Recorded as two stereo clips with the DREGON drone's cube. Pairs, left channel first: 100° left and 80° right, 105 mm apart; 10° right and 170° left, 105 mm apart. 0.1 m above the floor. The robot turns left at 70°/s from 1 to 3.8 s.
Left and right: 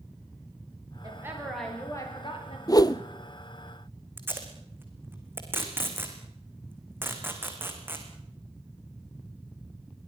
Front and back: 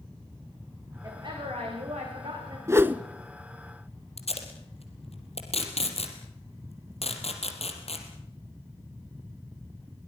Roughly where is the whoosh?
Behind left.